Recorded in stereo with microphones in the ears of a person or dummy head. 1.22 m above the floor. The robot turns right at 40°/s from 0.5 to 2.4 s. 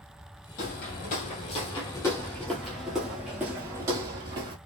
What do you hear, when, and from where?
0.6 s footsteps: 40° left (ahead or behind), 1.6 m; by 4.5 s 25° right (ahead or behind), 1.5 m